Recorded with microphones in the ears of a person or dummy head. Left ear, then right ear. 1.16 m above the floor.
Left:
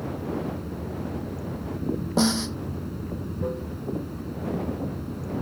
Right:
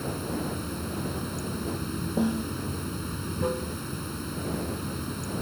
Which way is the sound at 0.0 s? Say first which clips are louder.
Left 1 dB; 65° right (ahead or behind).